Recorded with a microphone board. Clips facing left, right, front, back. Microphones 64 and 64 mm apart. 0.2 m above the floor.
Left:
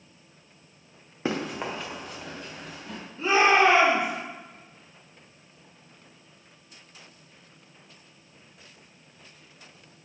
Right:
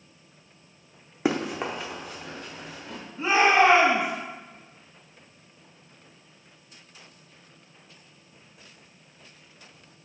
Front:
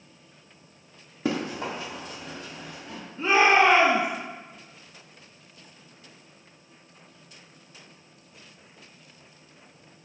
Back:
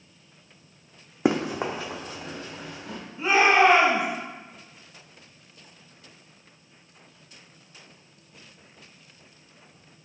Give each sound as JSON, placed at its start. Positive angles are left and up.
{"t": 1.2, "sound": "running footsteps", "azimuth_deg": -165, "distance_m": 0.6}
{"t": 3.2, "sound": "a shout", "azimuth_deg": -125, "distance_m": 1.3}